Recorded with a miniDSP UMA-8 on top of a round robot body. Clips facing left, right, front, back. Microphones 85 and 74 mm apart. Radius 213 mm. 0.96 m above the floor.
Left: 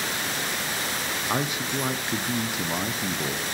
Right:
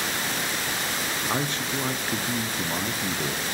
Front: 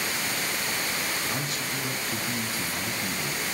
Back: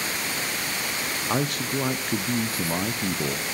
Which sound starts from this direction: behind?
A man speaking, at 1.3 s.